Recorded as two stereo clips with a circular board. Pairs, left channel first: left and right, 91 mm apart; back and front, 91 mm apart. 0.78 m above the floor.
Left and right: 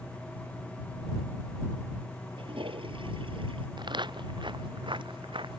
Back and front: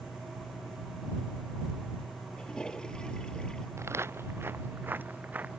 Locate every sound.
2.4 s a toilet flushing: 100° right
3.8 s footsteps: 60° right; by 5.6 s 75° right